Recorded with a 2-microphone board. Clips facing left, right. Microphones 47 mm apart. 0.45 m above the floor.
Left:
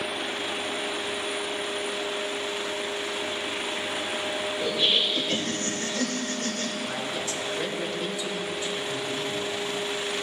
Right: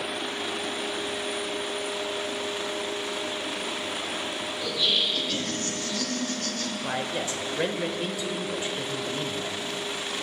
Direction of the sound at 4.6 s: 40° left (ahead or behind).